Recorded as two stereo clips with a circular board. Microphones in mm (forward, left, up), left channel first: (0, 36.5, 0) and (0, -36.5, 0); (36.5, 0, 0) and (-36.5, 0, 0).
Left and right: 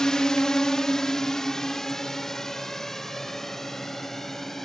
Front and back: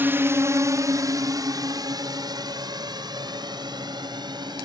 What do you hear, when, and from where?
0.0 s a drone: 165° left; by 4.7 s 175° left